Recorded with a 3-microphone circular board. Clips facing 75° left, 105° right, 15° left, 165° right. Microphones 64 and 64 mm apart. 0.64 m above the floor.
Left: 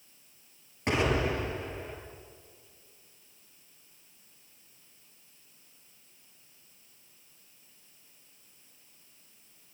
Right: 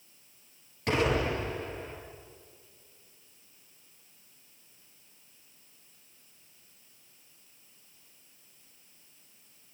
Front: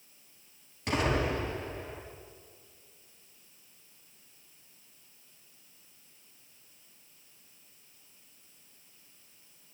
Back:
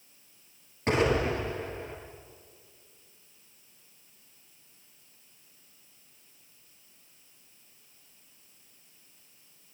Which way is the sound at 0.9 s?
140° left.